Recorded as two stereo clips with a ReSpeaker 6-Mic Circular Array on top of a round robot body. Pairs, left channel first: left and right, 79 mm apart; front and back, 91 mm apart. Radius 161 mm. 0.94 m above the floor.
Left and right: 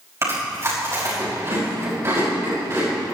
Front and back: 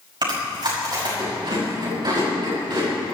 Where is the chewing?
145° right, 6 m.